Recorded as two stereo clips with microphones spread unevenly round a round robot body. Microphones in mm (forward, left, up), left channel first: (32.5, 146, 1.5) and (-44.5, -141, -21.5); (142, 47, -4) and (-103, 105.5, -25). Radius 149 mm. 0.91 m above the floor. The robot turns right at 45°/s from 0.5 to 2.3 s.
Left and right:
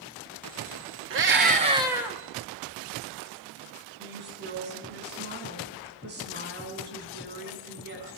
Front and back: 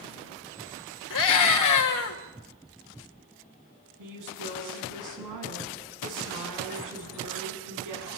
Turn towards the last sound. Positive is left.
turn(degrees=-160)